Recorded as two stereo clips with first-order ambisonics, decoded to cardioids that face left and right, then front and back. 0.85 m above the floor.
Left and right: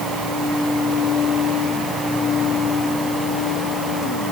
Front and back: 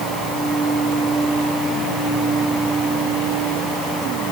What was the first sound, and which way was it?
Only background noise.